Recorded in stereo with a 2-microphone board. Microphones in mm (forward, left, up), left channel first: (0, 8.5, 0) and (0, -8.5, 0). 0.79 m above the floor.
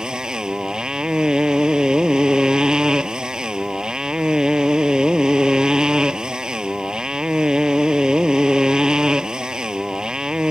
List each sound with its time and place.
0.0 s a motorcycle: 45° right (ahead or behind)